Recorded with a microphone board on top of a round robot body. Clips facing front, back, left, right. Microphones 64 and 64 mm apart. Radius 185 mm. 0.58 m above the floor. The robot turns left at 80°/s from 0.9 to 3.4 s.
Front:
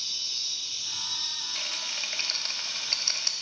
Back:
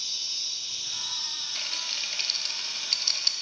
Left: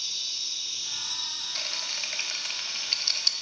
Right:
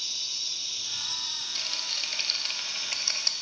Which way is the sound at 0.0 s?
175° left.